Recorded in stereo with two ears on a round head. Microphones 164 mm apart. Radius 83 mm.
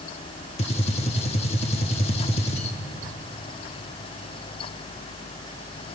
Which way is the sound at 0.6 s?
35° left (ahead or behind).